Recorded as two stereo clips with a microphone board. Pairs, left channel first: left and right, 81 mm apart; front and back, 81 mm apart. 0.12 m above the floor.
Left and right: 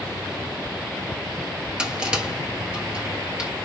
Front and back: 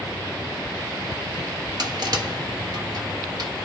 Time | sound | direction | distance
1.8 | crushing | 165° right | 0.8 m